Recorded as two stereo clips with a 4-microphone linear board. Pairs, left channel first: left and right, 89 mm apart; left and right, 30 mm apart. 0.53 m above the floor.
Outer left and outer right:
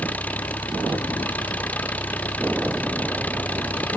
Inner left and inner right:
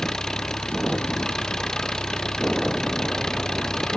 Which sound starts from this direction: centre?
An engine running, at 0.0 s.